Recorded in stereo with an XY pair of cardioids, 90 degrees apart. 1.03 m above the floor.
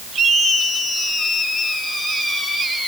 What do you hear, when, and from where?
Only background noise.